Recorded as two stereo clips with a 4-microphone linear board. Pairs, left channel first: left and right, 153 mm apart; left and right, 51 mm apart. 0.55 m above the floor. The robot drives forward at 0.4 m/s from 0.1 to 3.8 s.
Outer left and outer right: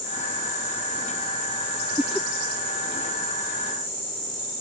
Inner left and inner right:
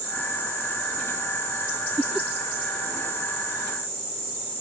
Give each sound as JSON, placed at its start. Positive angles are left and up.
{"t": 2.0, "sound": "laughter", "side_deg": -5}